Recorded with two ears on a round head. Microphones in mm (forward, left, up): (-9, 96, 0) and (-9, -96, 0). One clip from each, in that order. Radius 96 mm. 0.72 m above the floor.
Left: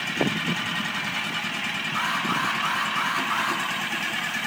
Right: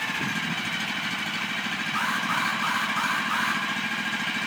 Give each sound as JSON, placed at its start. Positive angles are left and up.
{"t": 1.9, "sound": "an alarm", "side_deg": -5, "distance_m": 7.5}